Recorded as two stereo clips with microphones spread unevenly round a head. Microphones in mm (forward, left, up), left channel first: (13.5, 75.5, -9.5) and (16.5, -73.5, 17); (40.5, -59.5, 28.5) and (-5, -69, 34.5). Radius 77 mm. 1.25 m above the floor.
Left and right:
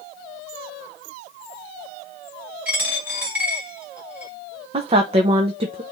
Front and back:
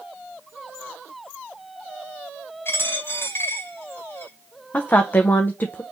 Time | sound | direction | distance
2.6 | a dropped coin | 15° right | 2 m
4.7 | a woman speaking | 35° right | 0.7 m